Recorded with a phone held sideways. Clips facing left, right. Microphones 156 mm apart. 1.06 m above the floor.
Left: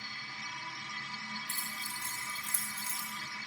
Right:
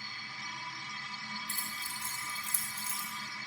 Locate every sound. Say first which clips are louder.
0.0 s a machine running: even; 80° left, 0.8 m
1.5 s keys jangling: even; 75° right (ahead or behind), 1.2 m